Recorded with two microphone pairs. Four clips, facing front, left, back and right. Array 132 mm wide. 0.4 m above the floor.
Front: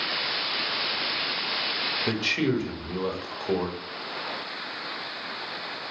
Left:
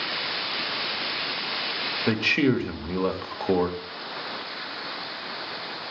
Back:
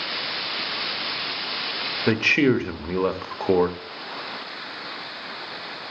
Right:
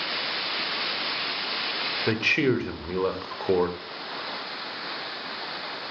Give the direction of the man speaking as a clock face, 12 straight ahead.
6 o'clock.